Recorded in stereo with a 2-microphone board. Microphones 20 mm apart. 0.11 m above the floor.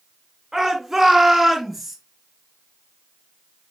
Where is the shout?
10° right (ahead or behind), 1.2 m; by 2.0 s 5° right (ahead or behind), 1.3 m.